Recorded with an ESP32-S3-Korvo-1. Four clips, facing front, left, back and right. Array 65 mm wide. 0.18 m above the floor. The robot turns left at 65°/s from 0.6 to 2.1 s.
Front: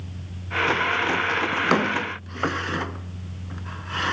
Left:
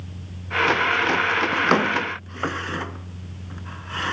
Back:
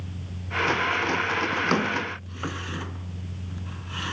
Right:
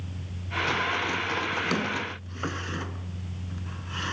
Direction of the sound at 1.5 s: 75° left.